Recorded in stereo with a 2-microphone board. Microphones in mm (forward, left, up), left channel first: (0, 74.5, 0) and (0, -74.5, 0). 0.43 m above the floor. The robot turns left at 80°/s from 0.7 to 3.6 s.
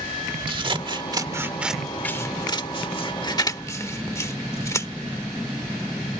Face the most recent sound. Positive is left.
turn(degrees=20)  # may be behind; listen again after turning